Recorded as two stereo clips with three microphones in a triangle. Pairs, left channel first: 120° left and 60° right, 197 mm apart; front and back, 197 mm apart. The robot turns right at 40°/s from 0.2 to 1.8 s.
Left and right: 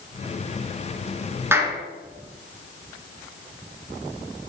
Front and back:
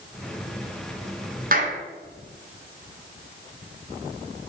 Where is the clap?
140° right, 2 m; by 1.8 s 125° right, 2 m.